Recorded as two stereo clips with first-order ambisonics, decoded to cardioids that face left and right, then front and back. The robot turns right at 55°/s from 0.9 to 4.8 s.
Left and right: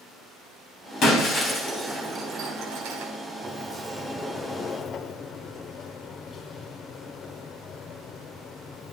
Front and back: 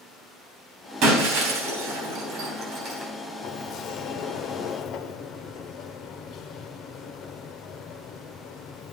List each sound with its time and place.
1.0 s breaking glass: 135° left, 3 m; by 3.1 s 110° right, 3 m
3.4 s a sliding door: 40° right, 0.6 m; by 8.9 s 35° left, 0.6 m